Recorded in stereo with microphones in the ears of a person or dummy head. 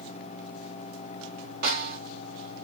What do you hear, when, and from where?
1.6 s a snare drum: 45° right (ahead or behind), 2 m